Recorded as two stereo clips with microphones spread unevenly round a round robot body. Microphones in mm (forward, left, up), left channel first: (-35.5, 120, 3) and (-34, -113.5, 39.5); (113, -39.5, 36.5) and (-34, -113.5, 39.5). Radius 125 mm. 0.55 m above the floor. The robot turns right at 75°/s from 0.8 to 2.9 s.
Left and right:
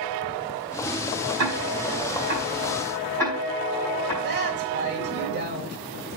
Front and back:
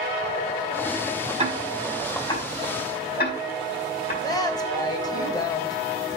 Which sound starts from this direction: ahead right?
A woman speaking, at 4.2 s.